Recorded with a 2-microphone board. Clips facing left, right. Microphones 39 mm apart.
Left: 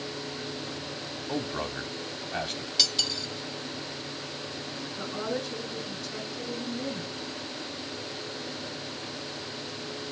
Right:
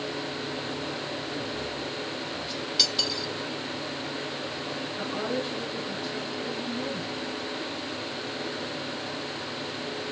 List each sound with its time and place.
1.3 s a man speaking: 55° left (ahead or behind), 1.1 m
2.8 s cutlery clinking: 5° right (ahead or behind), 1.4 m
5.0 s a woman speaking: 30° right (ahead or behind), 7 m